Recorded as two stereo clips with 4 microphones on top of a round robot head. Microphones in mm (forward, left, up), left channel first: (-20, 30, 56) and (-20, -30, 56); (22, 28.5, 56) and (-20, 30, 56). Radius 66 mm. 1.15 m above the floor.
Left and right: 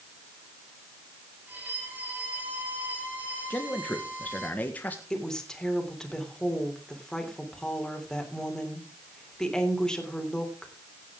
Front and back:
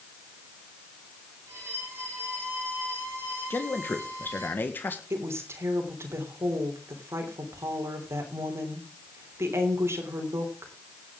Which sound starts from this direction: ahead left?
A man speaking, at 3.5 s.